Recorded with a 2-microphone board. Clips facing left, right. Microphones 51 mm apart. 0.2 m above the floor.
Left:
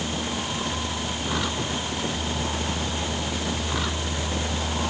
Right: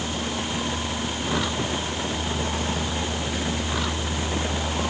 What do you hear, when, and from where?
Only background noise.